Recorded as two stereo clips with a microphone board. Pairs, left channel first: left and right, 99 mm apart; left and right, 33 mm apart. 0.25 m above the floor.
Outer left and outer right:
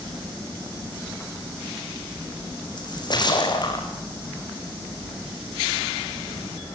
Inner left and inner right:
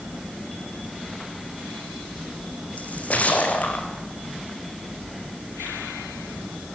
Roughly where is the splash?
Left.